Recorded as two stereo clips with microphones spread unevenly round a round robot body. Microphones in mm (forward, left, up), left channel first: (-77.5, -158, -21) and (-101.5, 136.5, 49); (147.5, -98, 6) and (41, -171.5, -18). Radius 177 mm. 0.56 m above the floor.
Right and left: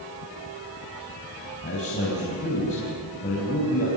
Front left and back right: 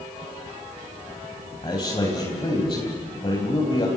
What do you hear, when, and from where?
1.6 s a man speaking: 20° right, 4 m